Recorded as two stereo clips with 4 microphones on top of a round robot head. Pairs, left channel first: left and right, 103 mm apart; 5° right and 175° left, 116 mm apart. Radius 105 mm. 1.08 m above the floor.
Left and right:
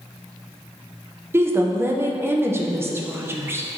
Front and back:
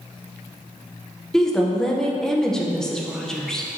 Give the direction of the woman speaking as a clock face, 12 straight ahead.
3 o'clock.